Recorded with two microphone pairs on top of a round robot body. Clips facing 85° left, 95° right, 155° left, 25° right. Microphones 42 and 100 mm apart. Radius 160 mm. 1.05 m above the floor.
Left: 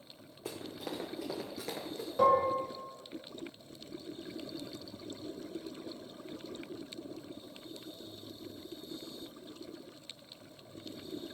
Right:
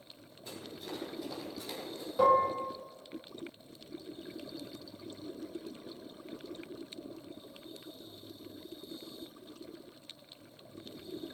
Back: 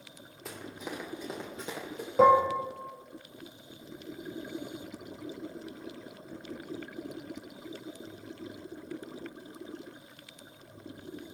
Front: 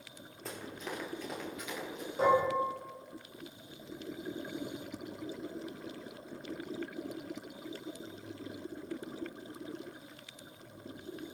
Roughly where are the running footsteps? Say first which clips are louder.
Left 3 dB, back 1 dB; ahead left.